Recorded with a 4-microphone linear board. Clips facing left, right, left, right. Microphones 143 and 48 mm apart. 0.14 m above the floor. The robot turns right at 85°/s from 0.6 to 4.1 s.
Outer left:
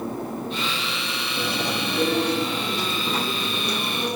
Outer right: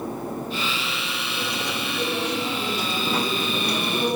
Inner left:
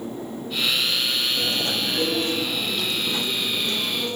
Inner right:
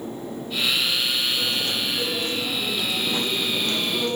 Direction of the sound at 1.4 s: 65° left.